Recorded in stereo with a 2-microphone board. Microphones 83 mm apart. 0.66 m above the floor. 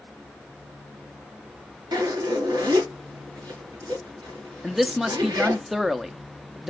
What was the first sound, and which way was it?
A zipper, 60° right (ahead or behind).